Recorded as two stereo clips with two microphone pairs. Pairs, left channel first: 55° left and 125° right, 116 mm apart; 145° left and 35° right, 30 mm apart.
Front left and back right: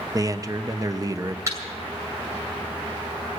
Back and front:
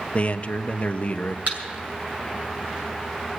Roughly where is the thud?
Ahead right.